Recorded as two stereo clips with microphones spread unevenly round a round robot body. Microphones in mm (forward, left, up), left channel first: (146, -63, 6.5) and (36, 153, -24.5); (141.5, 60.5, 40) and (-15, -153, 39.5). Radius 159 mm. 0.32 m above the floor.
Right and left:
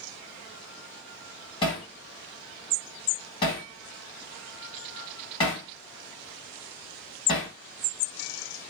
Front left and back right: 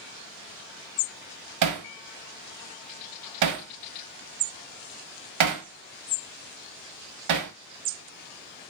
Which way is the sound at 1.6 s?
140° right.